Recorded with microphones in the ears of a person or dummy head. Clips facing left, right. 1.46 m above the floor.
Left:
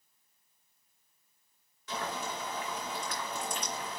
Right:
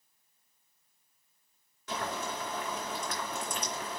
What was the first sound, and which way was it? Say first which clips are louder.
Boiling: right 1 dB; 45° right (ahead or behind).